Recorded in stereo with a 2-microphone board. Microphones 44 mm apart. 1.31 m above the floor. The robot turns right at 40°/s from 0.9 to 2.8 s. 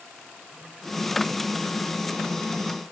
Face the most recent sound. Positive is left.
No sound to turn to.